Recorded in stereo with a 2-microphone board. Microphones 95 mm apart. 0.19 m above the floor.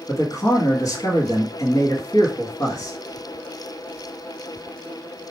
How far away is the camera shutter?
No camera shutter in this recording.